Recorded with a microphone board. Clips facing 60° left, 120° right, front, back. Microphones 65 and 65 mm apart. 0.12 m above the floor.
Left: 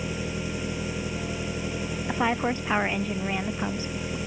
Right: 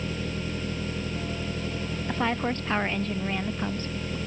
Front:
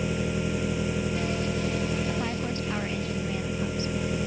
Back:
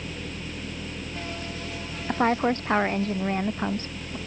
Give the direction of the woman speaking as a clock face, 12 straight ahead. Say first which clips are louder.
Left 2 dB, back 7 dB; 7 o'clock.